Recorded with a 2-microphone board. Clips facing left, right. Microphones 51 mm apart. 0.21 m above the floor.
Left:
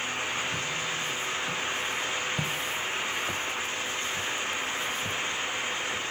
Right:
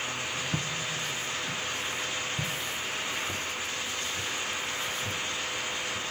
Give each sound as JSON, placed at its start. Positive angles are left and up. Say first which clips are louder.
{"t": 0.5, "sound": "footsteps", "louder": "left 2 dB", "side_deg": -45, "distance_m": 0.7}